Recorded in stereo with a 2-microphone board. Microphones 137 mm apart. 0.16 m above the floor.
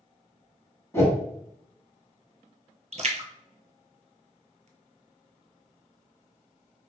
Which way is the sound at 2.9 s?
55° right (ahead or behind).